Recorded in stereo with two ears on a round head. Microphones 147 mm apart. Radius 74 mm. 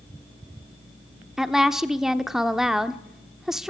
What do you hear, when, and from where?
1.4 s a woman speaking: centre (ahead or behind), 1.0 m